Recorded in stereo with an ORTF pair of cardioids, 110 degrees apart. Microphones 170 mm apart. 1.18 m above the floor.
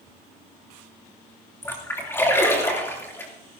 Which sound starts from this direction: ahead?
A splash, at 1.6 s.